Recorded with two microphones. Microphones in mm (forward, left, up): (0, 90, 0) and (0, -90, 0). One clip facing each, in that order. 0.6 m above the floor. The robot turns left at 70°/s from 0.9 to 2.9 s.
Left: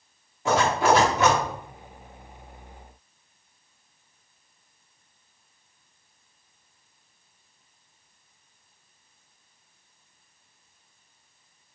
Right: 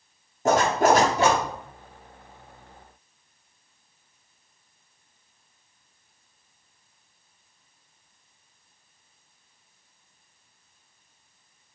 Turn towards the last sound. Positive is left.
turn(degrees=105)